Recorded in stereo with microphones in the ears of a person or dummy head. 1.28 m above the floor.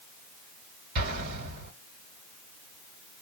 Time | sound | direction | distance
0.9 | an explosion | 55° right (ahead or behind) | 2.5 m